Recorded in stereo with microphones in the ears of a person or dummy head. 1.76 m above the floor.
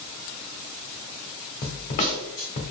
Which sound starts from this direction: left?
A snare drum, at 1.6 s.